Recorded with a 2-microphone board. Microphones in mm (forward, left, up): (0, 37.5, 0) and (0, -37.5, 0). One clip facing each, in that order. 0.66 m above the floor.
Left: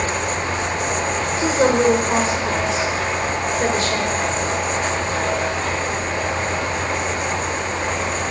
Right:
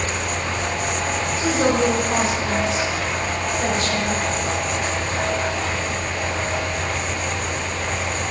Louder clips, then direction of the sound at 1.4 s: Left 3 dB; 45° left (ahead or behind).